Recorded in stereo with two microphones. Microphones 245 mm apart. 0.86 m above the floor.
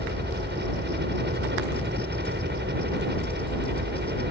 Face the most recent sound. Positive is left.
turn(degrees=-45)  # may be behind; listen again after turning